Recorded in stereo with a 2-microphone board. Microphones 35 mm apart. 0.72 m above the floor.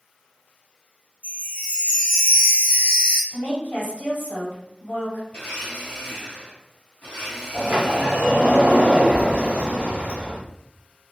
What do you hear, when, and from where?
1.2 s a chime: 50° left (ahead or behind), 1.5 m
3.3 s a woman speaking: 60° left (ahead or behind), 1.8 m
5.3 s a blender: 55° left (ahead or behind), 1.1 m
7.5 s a sliding door: 50° right (ahead or behind), 1.0 m